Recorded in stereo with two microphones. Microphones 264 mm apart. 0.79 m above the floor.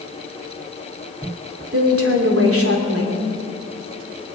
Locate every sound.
1.7 s a woman speaking: 55° right (ahead or behind), 2.5 m